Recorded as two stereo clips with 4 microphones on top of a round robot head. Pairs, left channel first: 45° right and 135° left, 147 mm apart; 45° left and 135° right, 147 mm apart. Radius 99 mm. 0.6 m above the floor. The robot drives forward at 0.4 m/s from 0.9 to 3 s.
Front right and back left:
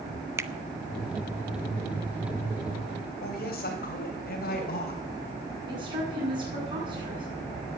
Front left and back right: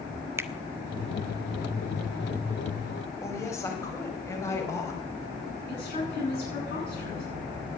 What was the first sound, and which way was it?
A finger snap, straight behind.